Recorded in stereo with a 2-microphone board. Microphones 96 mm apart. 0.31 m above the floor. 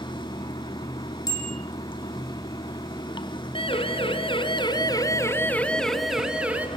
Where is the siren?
75° left (ahead or behind), 3 m; by 6.7 s 15° right (ahead or behind), 3 m.